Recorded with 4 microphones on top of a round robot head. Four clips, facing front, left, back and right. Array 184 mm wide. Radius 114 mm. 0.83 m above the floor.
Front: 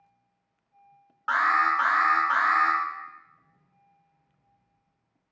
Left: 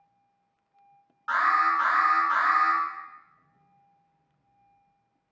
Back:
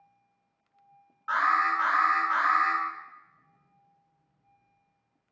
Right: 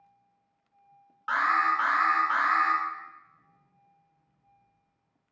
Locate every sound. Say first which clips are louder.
1.3 s an alarm: left 2 dB, front 2 dB; 20° right, 0.6 m